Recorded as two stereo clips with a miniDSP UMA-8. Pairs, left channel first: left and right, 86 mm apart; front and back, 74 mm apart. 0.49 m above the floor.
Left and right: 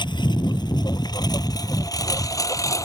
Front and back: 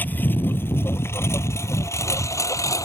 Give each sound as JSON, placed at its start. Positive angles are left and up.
{"t": 0.0, "sound": "a lawn mower", "azimuth_deg": 65}